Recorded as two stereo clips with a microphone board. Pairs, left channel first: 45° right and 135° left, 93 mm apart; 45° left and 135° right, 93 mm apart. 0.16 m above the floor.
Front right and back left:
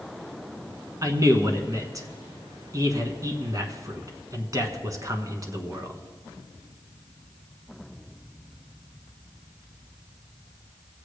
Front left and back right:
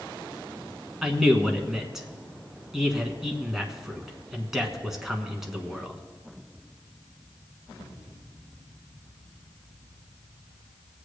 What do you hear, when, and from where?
1.0 s a man speaking: 140° left, 1.3 m